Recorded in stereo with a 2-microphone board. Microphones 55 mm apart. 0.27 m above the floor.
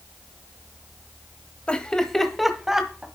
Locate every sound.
1.7 s laughter: 20° left (ahead or behind), 1.0 m; by 3.1 s 15° right (ahead or behind), 1.3 m